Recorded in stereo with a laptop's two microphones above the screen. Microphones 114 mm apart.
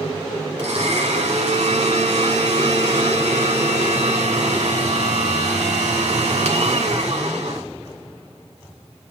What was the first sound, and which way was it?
A blender, 70° right (ahead or behind).